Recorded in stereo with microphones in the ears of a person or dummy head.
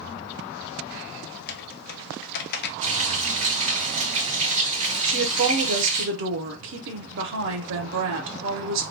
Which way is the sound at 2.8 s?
40° right (ahead or behind).